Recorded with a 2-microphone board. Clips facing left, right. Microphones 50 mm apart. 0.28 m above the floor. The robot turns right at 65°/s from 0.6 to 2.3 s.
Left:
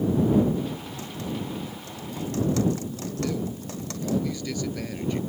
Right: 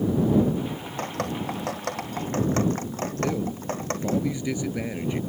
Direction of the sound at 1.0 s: 50° right (ahead or behind).